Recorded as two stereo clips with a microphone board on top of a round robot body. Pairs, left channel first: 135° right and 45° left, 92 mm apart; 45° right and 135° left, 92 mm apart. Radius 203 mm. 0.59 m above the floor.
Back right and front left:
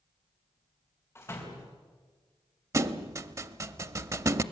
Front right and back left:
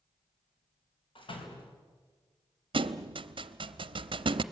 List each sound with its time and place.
1.1 s a door slam: 75° right, 4 m
2.7 s a thud: 100° left, 0.7 m